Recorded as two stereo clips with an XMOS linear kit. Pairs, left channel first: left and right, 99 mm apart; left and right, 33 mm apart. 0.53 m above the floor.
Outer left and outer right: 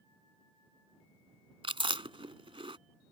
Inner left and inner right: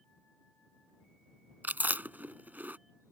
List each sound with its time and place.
1.6 s chewing: 70° right (ahead or behind)